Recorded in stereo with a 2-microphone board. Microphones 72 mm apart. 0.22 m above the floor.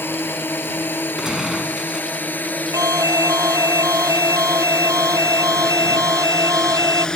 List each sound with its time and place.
0.0 s a drone: 30° left (ahead or behind); by 7.2 s 10° left (ahead or behind)
1.2 s a gunshot: 5° right (ahead or behind)
2.7 s an alarm: 60° right (ahead or behind)